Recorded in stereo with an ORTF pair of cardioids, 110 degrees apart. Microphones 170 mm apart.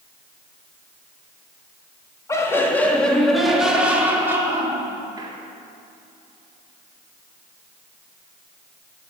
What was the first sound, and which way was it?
Laughter, 20° left.